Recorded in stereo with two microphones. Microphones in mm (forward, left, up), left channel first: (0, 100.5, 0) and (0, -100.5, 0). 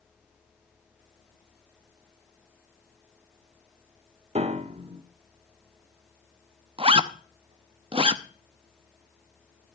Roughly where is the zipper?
Right.